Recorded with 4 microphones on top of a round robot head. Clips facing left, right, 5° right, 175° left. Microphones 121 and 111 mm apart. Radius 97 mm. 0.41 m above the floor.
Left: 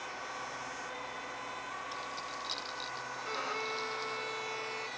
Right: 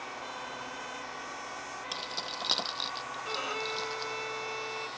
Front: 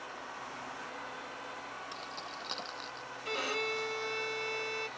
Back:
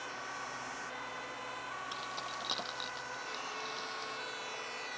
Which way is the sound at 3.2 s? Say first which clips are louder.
Right 2 dB, front 7 dB; 10° right.